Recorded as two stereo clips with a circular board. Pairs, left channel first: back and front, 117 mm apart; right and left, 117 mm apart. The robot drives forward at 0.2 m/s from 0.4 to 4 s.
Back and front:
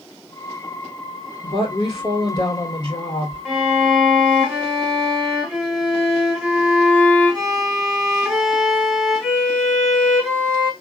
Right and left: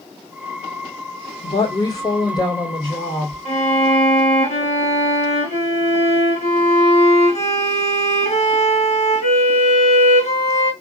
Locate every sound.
1.4 s a woman speaking: 135° right, 3 m; by 3.4 s 140° right, 3.5 m
3.5 s a violin: 90° right, 2 m; by 10.7 s 95° right, 2 m